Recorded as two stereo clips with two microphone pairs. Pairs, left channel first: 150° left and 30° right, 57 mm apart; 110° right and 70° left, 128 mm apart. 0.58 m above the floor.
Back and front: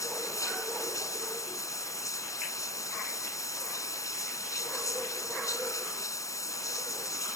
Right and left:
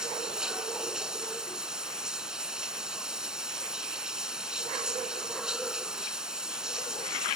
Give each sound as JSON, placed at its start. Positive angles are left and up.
{"t": 0.0, "sound": "running water", "azimuth_deg": 155}